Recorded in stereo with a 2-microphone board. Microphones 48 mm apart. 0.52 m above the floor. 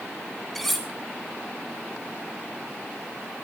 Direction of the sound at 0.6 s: 5° left (ahead or behind).